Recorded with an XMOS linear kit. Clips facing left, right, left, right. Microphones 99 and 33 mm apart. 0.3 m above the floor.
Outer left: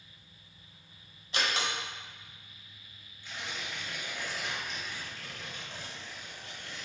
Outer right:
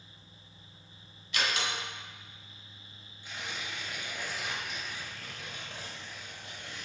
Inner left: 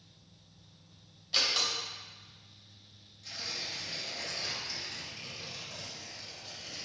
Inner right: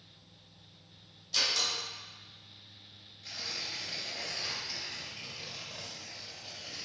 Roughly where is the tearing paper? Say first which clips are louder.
Even, even; centre.